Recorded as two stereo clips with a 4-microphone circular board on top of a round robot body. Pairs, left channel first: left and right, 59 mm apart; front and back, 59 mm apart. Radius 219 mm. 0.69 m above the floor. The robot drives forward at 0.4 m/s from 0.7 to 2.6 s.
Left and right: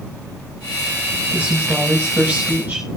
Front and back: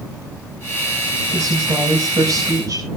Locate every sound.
1.3 s a woman speaking: 155° right, 6 m; by 2.9 s 160° right, 6.5 m